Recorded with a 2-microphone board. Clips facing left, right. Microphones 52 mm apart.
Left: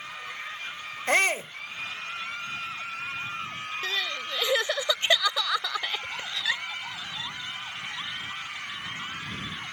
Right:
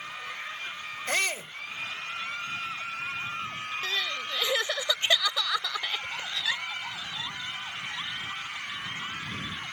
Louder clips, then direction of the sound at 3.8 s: Left 1 dB; 20° left (ahead or behind).